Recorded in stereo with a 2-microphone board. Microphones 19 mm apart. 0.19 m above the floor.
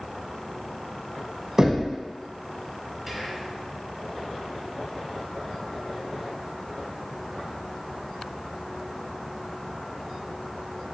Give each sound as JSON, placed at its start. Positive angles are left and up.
{"t": 1.6, "sound": "knocking", "side_deg": -25, "distance_m": 0.8}
{"t": 3.1, "sound": "whispering", "side_deg": -10, "distance_m": 1.0}